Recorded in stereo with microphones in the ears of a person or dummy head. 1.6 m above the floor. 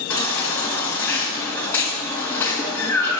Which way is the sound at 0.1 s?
20° left (ahead or behind).